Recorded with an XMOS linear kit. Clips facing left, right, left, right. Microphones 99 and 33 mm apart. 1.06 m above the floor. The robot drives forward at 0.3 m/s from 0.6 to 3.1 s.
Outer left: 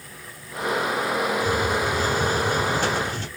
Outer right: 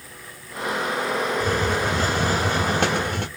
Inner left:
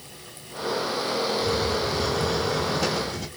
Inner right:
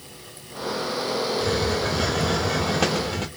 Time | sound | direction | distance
1.4 | a hiss | 70° right (ahead or behind) | 0.7 m